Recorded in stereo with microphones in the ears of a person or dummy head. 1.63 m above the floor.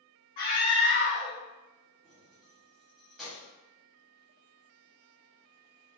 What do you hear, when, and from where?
0.4 s a scream: 40° left (ahead or behind), 0.9 m
2.0 s keys jangling: centre (ahead or behind), 1.0 m